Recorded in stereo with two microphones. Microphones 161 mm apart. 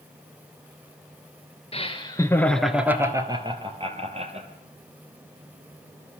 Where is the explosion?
I don't hear an explosion.